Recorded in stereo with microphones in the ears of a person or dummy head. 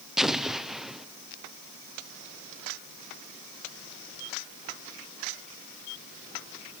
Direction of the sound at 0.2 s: Centre (ahead or behind).